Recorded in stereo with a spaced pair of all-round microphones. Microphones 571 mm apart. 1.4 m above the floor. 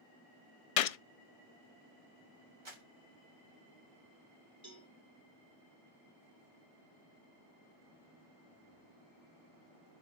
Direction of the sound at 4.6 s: 55° right (ahead or behind).